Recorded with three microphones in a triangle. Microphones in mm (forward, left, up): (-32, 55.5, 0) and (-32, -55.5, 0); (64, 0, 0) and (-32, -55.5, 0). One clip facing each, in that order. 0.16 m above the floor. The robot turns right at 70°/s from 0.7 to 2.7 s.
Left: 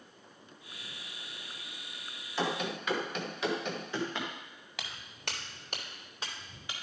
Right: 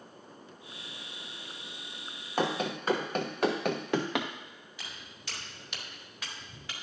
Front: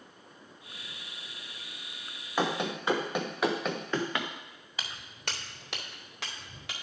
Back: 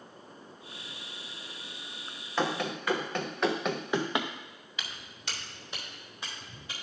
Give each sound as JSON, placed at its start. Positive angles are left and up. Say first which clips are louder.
{"t": 2.4, "sound": "running footsteps", "louder": "right 3 dB, even", "azimuth_deg": -50, "distance_m": 1.8}
{"t": 4.8, "sound": "footsteps", "louder": "left 5 dB, front 2 dB", "azimuth_deg": 85, "distance_m": 2.0}